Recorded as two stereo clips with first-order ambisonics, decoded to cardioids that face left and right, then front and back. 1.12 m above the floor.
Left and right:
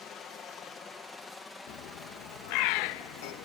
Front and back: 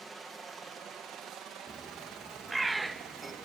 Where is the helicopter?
105° left; by 3.5 s 175° right.